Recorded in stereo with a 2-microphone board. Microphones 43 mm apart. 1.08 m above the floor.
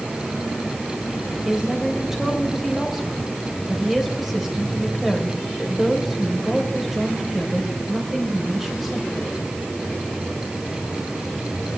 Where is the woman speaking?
10° right (ahead or behind), 4 m.